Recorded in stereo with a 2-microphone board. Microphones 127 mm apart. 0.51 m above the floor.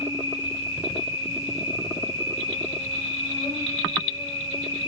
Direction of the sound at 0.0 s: 55° left (ahead or behind).